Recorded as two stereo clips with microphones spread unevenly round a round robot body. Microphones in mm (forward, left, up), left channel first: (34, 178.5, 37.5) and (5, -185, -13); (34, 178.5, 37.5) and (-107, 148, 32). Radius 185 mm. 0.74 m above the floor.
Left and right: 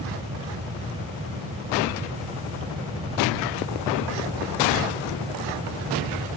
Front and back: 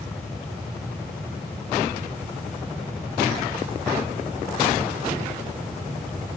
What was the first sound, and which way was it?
Only background noise.